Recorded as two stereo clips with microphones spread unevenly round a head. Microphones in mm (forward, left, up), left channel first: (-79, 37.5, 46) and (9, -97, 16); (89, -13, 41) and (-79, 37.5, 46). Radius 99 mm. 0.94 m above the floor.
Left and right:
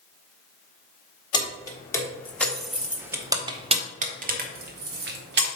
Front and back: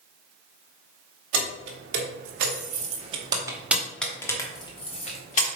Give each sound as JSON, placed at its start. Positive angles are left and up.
{"t": 1.3, "sound": "keys jangling", "azimuth_deg": -170, "distance_m": 1.8}